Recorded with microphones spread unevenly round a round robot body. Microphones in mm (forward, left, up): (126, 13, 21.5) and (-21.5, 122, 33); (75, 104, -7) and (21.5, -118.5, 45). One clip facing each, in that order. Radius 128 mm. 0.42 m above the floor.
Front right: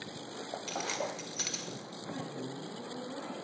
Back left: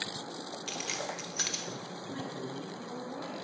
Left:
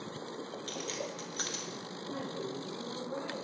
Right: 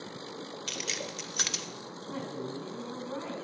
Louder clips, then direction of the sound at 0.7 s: Front right 3 dB, left 1 dB; 120° right.